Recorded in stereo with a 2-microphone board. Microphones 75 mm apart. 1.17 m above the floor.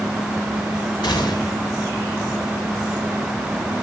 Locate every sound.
1.0 s a gunshot: 75° left (ahead or behind), 2 m